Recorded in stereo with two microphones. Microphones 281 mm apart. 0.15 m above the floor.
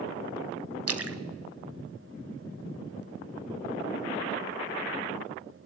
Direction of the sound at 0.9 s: 55° right (ahead or behind).